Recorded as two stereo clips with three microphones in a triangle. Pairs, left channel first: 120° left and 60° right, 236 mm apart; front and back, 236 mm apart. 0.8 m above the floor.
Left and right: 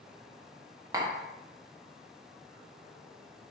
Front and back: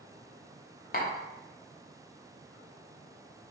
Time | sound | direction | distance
0.9 | tapping | 10° left | 0.7 m